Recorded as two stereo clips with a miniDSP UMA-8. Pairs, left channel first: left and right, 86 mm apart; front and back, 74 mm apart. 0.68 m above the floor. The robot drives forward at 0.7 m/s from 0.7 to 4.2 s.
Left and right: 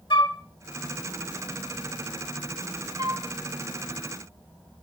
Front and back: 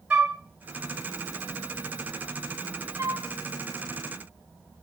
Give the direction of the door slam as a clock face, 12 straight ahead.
No door slam in this recording.